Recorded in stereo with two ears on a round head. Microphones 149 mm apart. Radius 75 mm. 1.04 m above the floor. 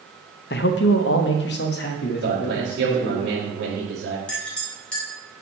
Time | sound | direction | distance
0.5 | a man speaking | 60° left (ahead or behind) | 0.7 m
2.2 | a man speaking | 75° right (ahead or behind) | 2 m
4.3 | a clink | 5° left (ahead or behind) | 3 m